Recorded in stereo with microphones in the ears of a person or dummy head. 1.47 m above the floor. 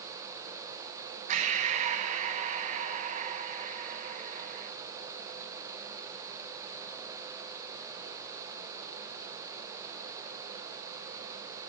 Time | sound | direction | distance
1.3 | breathing | 40° right (ahead or behind) | 1.9 m